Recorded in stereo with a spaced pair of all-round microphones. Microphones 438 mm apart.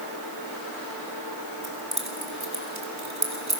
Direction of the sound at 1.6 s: 55° right (ahead or behind).